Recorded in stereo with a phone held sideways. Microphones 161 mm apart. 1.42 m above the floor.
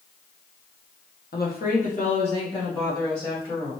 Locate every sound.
1.3 s a woman speaking: 75° left (ahead or behind), 1.0 m; by 3.7 s 15° left (ahead or behind), 2 m